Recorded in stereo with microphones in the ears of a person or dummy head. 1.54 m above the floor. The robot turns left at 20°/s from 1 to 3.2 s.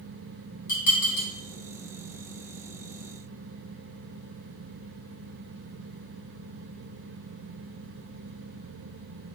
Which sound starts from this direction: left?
Dishes clattering, at 0.7 s.